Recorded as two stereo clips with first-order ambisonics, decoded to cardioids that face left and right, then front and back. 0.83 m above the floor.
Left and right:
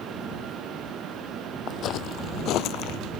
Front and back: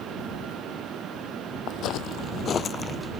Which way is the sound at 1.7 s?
40° left.